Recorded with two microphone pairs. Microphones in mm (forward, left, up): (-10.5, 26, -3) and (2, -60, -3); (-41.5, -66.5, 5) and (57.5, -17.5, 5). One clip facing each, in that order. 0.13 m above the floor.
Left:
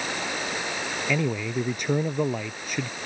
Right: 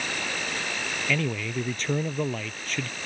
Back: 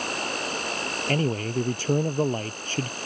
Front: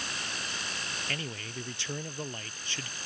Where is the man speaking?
175° left.